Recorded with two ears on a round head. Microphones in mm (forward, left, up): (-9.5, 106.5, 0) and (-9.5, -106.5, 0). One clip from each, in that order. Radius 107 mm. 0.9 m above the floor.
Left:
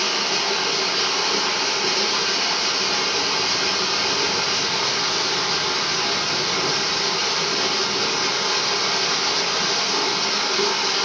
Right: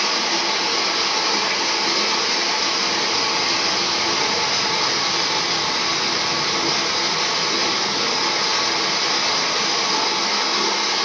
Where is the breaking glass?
No breaking glass in this recording.